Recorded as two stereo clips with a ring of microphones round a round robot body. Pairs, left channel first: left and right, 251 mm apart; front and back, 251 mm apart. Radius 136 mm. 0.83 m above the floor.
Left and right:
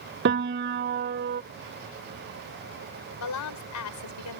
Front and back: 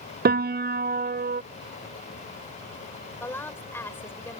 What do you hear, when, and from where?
0.2 s a piano: 130° right
3.2 s a woman speaking: 80° left